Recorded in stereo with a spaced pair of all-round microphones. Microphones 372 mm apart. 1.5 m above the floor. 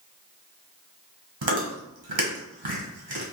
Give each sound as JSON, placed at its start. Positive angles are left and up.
{"t": 1.4, "sound": "chewing", "side_deg": -75, "distance_m": 1.2}